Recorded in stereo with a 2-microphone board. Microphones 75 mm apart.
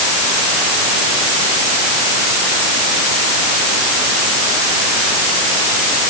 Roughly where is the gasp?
I don't hear a gasp.